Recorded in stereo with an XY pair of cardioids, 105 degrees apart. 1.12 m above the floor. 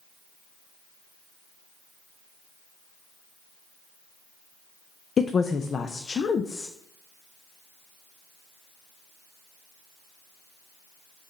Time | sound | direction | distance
5.2 | a woman speaking | 40° left | 0.5 m